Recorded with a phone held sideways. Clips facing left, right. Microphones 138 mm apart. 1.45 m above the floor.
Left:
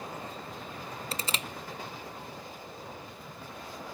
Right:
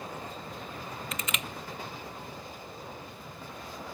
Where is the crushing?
35° left (ahead or behind), 0.5 m.